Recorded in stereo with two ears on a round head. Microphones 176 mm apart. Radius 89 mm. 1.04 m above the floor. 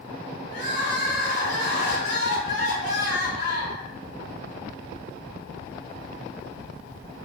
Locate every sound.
0.5 s crying: 70° left (ahead or behind), 1.5 m